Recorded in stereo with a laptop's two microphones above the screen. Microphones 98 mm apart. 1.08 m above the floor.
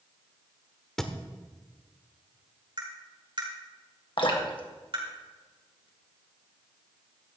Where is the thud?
5° left (ahead or behind), 1.4 m.